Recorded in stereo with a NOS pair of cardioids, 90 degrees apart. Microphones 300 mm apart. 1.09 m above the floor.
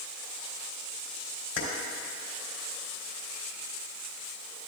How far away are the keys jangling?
About 3 m.